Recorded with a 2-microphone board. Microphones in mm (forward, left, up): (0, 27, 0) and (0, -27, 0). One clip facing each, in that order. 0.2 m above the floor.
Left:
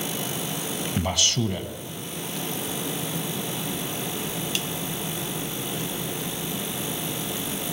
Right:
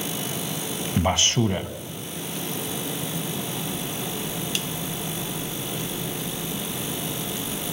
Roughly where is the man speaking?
Right.